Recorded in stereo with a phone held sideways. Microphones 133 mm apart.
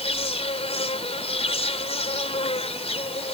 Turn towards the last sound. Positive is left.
turn(degrees=50)  # may be behind; listen again after turning